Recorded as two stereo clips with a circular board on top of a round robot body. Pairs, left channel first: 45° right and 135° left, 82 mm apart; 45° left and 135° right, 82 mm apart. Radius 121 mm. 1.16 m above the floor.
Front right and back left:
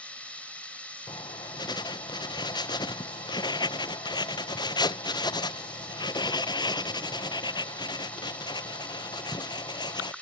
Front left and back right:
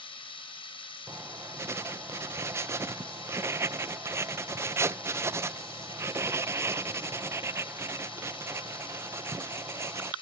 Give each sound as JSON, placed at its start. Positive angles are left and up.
{"t": 0.0, "sound": "running water", "azimuth_deg": 30}
{"t": 1.1, "sound": "writing", "azimuth_deg": -75}